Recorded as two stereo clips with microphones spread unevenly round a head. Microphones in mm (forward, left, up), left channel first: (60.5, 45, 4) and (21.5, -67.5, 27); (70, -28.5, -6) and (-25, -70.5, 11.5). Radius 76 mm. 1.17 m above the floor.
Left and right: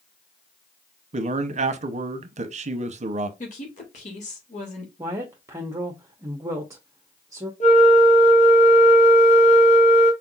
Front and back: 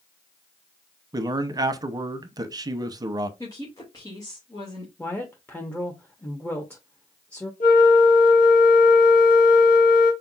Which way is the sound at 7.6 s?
45° left.